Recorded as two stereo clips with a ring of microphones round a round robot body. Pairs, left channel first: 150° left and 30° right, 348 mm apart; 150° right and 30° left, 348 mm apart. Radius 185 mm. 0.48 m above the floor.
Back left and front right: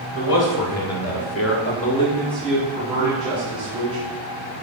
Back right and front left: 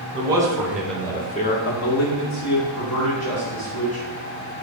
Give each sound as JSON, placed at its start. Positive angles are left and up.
{"t": 0.1, "sound": "a man speaking", "azimuth_deg": 105, "distance_m": 2.5}